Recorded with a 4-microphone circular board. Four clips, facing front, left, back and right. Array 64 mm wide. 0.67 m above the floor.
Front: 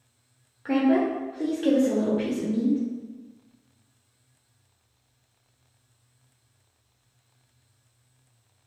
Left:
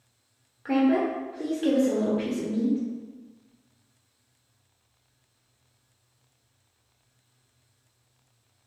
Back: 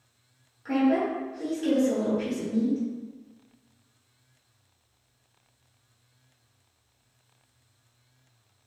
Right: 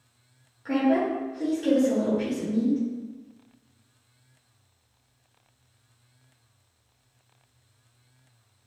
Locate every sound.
0.7 s a woman speaking: 35° left, 0.7 m